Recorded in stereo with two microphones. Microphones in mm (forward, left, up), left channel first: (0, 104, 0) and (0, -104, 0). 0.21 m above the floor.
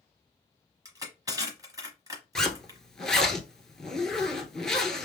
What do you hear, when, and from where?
0.8 s crushing: 20° right (ahead or behind), 1.1 m
2.4 s a zipper: 5° left (ahead or behind), 0.8 m